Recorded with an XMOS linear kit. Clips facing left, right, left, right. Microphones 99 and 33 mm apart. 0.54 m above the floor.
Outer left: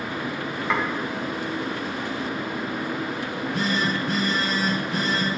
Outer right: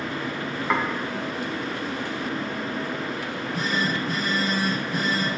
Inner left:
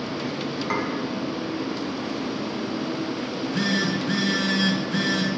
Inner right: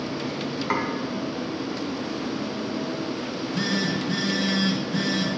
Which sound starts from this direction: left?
A phone buzzing, at 3.2 s.